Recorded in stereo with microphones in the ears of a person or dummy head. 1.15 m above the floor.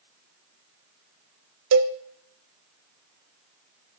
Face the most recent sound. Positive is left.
turn(degrees=-70)  # may be behind; listen again after turning